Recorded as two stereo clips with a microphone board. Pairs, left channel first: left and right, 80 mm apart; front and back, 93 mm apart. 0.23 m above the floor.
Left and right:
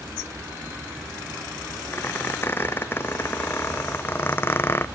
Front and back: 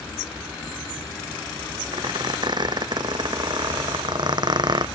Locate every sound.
1.9 s a squeak: 150° left, 0.5 m